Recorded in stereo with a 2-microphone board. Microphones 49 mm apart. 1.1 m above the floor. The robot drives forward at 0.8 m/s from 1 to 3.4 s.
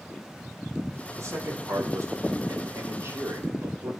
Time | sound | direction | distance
1.2 | a man speaking | 85° right | 4.5 m